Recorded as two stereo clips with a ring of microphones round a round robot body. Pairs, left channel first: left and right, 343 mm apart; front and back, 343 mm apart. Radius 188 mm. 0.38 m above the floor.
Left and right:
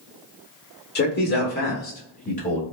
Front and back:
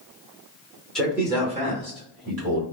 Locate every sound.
0.9 s a man speaking: 85° left, 0.9 m; by 2.6 s 155° left, 1.3 m